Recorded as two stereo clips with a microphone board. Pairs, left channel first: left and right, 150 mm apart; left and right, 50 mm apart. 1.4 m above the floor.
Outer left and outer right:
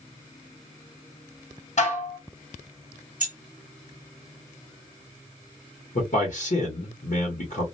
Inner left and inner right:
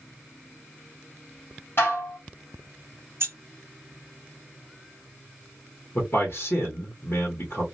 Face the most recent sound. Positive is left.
turn(degrees=60)  # may be behind; listen again after turning